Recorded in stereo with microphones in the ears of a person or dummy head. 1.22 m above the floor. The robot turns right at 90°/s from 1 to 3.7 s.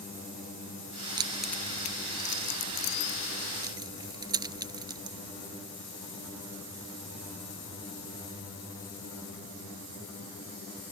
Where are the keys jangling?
25° right (ahead or behind).